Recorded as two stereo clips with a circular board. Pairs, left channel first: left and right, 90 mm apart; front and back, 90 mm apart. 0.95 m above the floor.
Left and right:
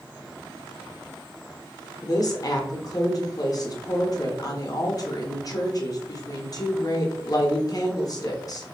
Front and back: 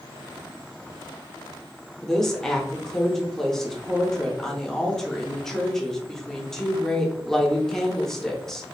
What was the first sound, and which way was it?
A woman speaking, 85° left.